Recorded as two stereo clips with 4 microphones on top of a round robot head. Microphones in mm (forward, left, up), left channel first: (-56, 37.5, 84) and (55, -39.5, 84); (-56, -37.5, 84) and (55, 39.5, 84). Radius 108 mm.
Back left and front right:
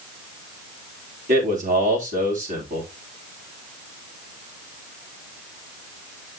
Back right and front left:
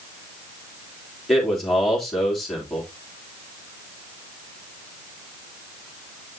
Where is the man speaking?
55° right, 3 m.